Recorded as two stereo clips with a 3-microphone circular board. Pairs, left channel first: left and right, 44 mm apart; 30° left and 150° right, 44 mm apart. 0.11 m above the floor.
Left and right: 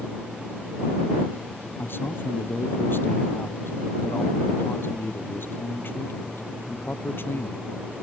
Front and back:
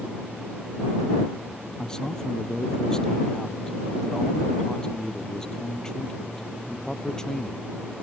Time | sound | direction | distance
1.8 | a man speaking | 100° left | ?